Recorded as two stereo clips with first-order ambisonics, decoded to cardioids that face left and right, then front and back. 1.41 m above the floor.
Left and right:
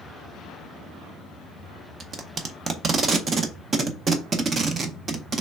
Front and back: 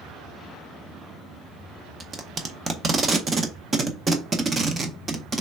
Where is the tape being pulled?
130° right, 0.6 m.